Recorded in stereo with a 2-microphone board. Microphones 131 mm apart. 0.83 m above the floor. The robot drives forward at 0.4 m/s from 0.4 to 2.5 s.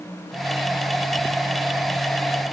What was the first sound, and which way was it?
Only background noise.